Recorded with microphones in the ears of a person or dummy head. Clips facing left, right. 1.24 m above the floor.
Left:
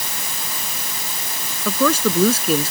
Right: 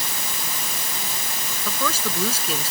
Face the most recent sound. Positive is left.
turn(degrees=50)  # may be behind; listen again after turning